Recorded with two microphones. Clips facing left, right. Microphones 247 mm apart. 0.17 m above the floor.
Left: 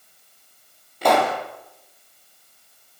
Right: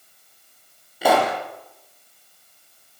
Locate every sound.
1.0 s a pop: 5° right (ahead or behind), 4 m